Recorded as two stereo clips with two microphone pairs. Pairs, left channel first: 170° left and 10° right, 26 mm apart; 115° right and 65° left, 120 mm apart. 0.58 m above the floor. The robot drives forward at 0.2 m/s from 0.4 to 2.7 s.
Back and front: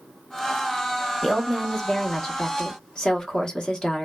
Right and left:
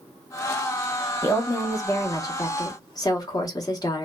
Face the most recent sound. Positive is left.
turn(degrees=-145)